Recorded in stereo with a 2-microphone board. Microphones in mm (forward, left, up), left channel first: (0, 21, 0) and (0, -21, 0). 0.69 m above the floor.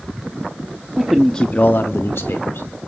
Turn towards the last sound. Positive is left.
turn(degrees=70)  # may be behind; listen again after turning